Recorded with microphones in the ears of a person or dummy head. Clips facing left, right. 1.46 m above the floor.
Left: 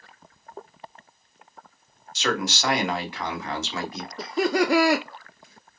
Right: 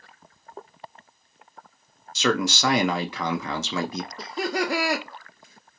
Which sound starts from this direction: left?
Laughter, at 4.2 s.